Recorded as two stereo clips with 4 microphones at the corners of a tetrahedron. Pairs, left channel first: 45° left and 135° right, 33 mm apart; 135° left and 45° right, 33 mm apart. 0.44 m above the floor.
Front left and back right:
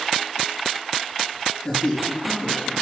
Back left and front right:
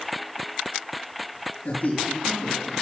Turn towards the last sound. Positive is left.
turn(degrees=110)